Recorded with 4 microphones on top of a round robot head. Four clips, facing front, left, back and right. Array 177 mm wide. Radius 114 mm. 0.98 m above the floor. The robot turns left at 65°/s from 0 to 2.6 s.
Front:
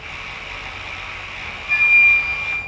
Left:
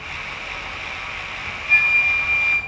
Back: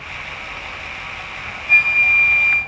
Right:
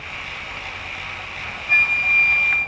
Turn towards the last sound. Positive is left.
turn(degrees=175)